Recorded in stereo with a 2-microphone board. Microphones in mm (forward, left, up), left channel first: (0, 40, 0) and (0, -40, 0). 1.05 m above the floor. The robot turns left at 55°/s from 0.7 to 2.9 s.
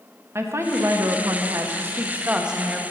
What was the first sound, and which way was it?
A woman speaking, 65° right.